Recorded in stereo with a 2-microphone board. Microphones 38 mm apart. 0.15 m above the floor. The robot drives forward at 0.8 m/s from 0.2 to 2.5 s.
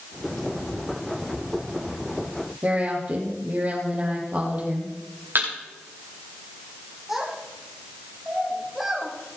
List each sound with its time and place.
2.6 s a woman speaking: 35° right (ahead or behind), 5 m
5.3 s a thud: 65° right (ahead or behind), 6.5 m
7.1 s a child speaking: 5° right (ahead or behind), 4.5 m